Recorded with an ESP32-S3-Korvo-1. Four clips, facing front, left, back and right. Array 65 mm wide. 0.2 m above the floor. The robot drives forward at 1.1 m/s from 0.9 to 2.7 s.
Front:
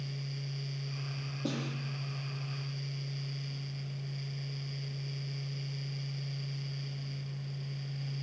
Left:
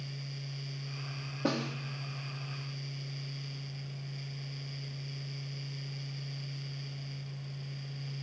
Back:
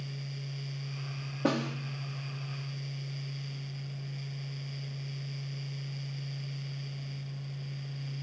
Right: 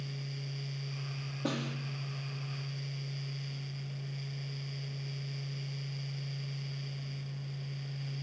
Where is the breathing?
I don't hear breathing.